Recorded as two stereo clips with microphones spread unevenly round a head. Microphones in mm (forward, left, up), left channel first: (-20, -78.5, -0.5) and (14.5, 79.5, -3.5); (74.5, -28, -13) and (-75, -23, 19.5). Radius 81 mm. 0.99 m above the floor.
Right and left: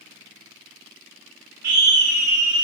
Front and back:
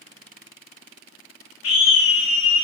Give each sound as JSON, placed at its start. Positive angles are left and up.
{"t": 1.6, "sound": "a scream", "azimuth_deg": 15, "distance_m": 3.0}